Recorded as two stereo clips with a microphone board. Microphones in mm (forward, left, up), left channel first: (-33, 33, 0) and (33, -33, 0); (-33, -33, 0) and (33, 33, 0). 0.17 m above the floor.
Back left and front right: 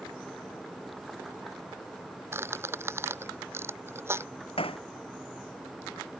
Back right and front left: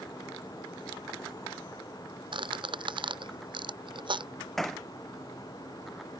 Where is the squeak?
20° left.